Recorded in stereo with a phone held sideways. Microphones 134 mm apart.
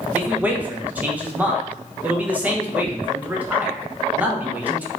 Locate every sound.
0.1 s a man speaking: 10° right (ahead or behind), 0.6 m